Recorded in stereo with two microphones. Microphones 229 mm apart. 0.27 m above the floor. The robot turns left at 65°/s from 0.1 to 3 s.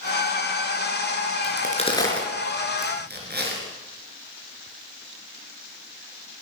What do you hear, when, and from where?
1.4 s a crack: 50° left (ahead or behind), 3.5 m; by 3.6 s 45° right (ahead or behind), 3.5 m